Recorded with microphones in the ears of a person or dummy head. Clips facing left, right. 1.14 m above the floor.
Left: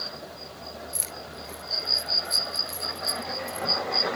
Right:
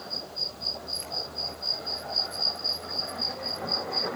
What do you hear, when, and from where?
0.9 s keys jangling: 55° left (ahead or behind)